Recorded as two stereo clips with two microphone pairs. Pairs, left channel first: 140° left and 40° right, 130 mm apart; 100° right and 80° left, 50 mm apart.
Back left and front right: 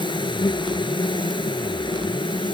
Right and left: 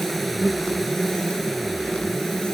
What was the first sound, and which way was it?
An insect, 170° left.